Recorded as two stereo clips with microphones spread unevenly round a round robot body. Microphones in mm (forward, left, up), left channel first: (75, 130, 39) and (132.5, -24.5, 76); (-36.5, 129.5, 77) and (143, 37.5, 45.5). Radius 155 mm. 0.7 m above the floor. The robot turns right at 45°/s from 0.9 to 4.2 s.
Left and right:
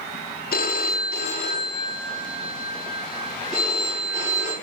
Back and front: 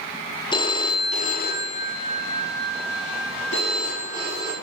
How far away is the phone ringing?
About 0.7 m.